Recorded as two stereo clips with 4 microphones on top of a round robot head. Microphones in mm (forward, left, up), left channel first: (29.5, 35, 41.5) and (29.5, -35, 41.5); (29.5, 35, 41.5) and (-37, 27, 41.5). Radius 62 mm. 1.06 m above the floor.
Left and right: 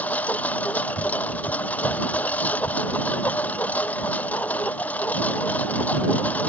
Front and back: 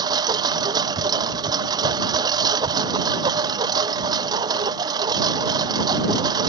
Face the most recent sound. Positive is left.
turn(degrees=165)